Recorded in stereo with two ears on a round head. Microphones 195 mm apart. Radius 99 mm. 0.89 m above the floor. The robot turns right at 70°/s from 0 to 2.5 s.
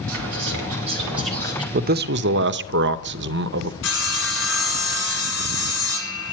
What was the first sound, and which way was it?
Whispering, 85° right.